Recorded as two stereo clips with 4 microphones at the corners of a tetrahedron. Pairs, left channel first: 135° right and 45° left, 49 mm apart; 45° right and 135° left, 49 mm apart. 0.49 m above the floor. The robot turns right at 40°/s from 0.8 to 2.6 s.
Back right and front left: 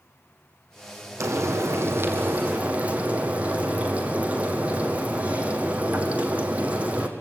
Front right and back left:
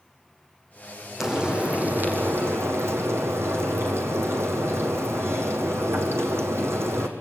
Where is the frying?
50° left, 3.5 m; by 7.1 s 110° left, 3.5 m.